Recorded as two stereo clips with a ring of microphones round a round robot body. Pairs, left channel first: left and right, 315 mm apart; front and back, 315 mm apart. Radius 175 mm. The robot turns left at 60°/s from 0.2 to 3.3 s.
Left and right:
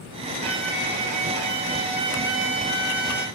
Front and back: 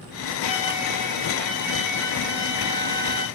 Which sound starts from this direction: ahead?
A violin, at 0.4 s.